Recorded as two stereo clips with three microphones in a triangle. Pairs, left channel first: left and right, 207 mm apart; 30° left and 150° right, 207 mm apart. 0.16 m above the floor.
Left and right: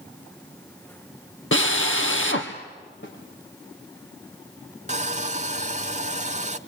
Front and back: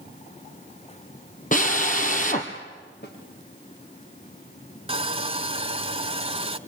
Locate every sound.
1.5 s a drill: 80° left, 2 m
3.0 s a snare drum: 65° left, 6.5 m
4.9 s sawing: 110° right, 0.8 m